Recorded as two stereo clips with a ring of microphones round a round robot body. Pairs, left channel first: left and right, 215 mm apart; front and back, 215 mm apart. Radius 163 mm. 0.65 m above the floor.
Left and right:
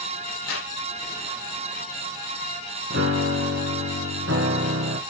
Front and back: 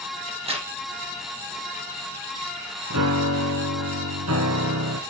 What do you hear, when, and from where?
0.3 s a crack: 115° left, 7.5 m
2.9 s a piano: 145° right, 1.4 m